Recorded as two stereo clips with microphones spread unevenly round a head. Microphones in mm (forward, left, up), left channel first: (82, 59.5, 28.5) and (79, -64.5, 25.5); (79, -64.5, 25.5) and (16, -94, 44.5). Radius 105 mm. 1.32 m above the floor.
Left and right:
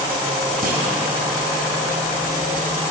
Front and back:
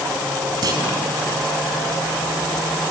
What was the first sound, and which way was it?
A clunk, 140° right.